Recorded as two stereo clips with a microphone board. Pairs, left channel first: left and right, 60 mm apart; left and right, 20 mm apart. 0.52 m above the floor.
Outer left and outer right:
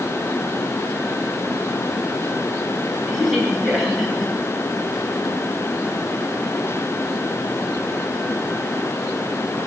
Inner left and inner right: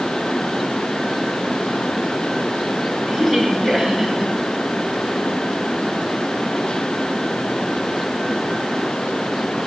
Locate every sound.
3.1 s a woman speaking: centre (ahead or behind), 9.5 m